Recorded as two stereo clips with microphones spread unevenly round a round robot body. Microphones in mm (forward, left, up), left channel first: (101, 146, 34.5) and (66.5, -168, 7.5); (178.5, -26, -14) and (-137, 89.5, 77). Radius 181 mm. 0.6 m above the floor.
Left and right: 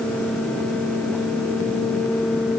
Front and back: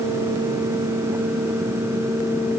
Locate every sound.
Only background noise.